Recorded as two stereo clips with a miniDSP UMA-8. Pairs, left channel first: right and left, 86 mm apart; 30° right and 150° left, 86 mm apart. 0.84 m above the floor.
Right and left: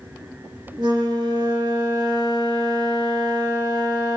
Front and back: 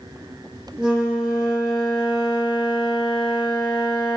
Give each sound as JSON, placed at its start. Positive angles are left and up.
{"t": 0.8, "sound": "a flute", "azimuth_deg": 75, "distance_m": 0.6}